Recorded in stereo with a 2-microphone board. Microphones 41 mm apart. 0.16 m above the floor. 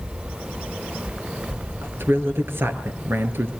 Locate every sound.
1.8 s a man speaking: 65° right (ahead or behind), 3 m